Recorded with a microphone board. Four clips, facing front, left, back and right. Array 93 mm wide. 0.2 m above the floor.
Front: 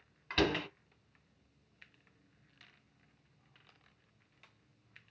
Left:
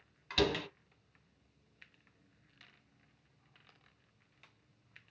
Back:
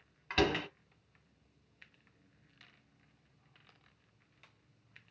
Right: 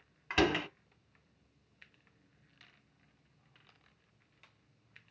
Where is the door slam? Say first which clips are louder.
Right 3 dB, back 1 dB; 105° right, 0.7 m.